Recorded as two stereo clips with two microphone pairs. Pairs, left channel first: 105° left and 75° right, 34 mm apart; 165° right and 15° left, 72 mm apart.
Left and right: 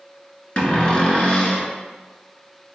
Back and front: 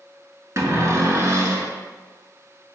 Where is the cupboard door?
55° left, 0.7 m.